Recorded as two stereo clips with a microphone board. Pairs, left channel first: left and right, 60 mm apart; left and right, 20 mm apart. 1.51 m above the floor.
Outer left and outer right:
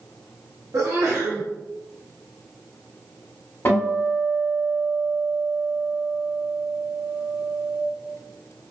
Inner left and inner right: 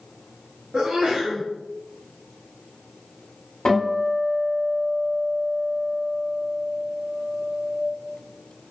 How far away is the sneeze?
About 1.1 m.